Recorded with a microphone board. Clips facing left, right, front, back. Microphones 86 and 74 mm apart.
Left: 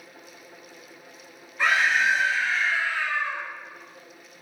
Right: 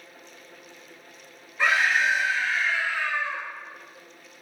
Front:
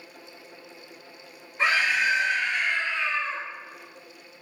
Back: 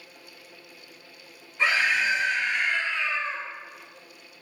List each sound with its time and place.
1.6 s a scream: 20° left, 1.1 m; by 3.4 s 125° left, 1.8 m